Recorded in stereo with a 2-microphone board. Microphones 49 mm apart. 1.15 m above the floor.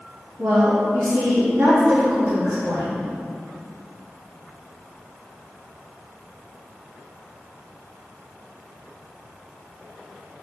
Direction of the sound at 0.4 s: 60° right (ahead or behind).